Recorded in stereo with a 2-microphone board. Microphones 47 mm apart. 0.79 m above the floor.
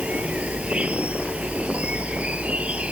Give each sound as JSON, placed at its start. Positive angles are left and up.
{"t": 0.0, "sound": "an insect", "side_deg": -25}